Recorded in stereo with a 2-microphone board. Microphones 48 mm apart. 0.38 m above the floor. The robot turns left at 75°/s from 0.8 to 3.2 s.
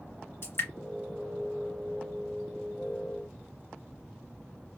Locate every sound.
0.4 s dripping: 55° left (ahead or behind), 1.3 m